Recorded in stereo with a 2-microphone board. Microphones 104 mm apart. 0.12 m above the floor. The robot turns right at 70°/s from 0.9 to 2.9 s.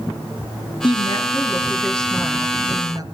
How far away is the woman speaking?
About 2.5 m.